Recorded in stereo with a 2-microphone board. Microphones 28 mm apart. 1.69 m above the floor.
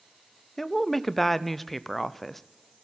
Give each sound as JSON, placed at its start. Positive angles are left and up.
{"t": 0.6, "sound": "a woman speaking", "side_deg": 10, "distance_m": 0.6}